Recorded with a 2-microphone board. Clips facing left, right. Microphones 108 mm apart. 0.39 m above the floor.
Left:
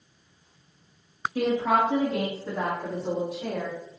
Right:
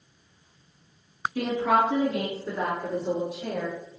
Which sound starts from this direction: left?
A woman speaking, at 1.4 s.